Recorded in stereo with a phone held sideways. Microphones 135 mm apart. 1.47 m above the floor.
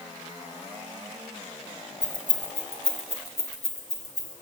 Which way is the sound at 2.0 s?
30° left (ahead or behind).